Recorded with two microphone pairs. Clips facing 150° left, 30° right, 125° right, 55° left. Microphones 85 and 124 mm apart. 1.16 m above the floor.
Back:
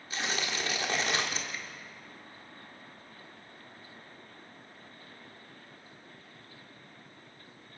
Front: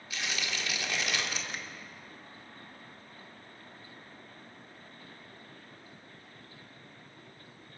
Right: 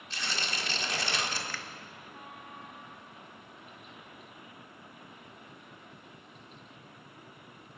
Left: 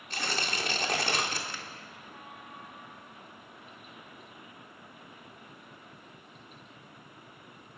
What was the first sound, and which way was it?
Tearing paper, 95° left.